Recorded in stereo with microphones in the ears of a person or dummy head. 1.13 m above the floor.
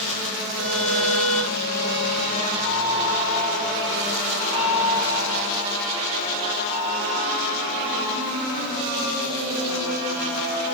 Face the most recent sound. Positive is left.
turn(degrees=70)  # may be behind; listen again after turning